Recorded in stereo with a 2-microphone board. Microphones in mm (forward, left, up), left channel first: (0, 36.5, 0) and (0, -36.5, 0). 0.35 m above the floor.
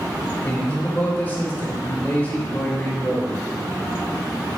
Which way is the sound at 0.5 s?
25° left (ahead or behind).